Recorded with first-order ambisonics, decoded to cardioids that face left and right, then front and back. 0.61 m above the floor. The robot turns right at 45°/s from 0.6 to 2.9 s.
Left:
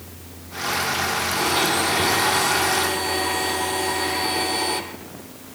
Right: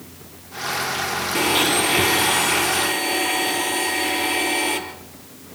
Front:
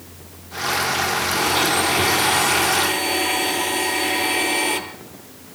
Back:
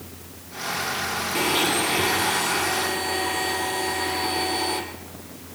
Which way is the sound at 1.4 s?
110° right.